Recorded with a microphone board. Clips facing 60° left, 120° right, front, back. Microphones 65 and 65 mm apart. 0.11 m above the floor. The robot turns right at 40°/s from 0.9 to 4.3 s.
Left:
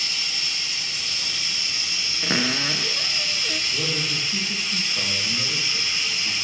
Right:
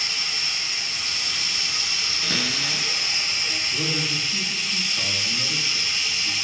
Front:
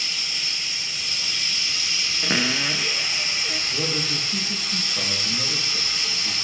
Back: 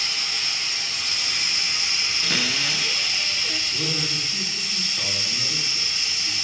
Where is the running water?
150° right, 2.5 m; by 6.5 s 15° right, 2.5 m.